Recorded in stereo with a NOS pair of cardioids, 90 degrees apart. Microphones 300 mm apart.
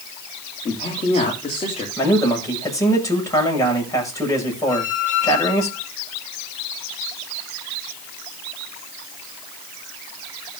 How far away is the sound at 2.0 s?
About 7 m.